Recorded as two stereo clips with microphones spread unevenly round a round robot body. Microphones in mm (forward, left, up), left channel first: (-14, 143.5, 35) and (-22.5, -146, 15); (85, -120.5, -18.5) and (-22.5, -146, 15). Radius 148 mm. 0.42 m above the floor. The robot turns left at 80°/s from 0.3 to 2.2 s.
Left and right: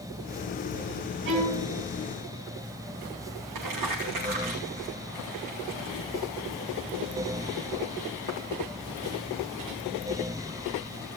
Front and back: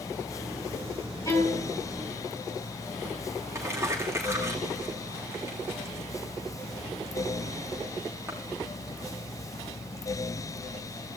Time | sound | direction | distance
1.2 | a violin | 40° right | 7 m
3.5 | crumpling | 105° right | 8.5 m